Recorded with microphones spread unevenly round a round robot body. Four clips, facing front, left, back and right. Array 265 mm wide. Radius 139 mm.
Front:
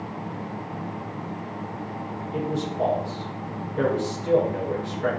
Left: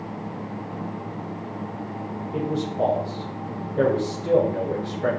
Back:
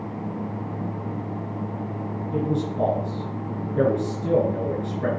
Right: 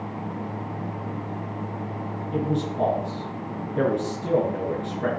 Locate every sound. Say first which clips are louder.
2.3 s a man speaking: even, back 3 dB; 150° right, 4.5 m